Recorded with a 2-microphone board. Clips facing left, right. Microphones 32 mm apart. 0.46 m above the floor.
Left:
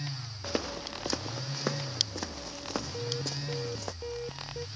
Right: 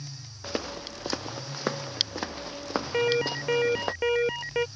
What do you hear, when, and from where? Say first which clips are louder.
0.4 s footsteps: right 1 dB; 5° right (ahead or behind); by 3.9 s 35° right (ahead or behind)
2.9 s an alarm: right 11 dB; 70° right (ahead or behind)